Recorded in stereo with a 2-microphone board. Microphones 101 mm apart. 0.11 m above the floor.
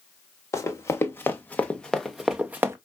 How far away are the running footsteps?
About 1.4 m.